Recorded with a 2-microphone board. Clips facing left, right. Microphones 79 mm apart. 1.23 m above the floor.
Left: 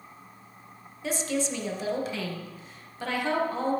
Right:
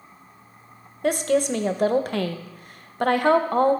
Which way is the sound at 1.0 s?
60° right (ahead or behind).